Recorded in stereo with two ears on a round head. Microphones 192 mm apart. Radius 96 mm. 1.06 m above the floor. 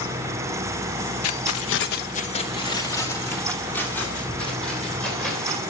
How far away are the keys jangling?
About 0.6 m.